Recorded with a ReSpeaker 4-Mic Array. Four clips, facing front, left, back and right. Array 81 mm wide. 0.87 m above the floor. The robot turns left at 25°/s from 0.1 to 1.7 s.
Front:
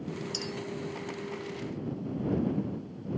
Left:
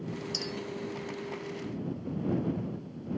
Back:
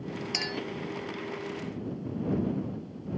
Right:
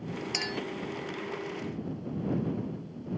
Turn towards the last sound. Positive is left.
turn(degrees=-160)